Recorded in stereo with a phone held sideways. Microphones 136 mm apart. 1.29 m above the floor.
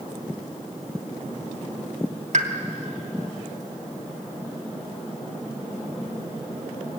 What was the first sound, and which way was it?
A pop, 60° right (ahead or behind).